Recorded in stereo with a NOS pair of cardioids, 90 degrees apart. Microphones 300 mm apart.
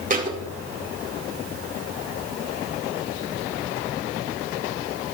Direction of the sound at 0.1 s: 30° right.